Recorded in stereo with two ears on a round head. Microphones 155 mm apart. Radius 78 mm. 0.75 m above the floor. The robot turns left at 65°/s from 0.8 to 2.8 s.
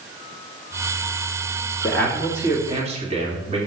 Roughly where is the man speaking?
Ahead.